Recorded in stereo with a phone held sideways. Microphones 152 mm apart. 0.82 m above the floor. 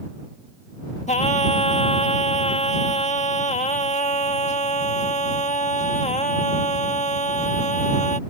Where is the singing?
50° left (ahead or behind).